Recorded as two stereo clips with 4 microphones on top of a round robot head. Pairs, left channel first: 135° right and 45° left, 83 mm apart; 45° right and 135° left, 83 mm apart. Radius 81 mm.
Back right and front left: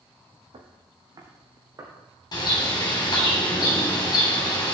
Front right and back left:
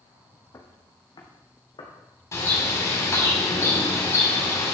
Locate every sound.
0.5 s footsteps: 15° left, 1.3 m; by 1.9 s 10° right, 2.5 m
2.3 s a bird: 100° right, 3 m